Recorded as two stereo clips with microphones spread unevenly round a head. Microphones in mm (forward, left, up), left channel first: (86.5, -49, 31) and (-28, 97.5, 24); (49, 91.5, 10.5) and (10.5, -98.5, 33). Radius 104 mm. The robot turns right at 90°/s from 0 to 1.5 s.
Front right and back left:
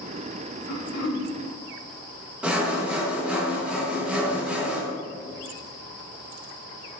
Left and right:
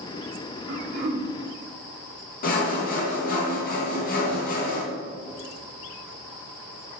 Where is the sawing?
45° left, 1.3 m.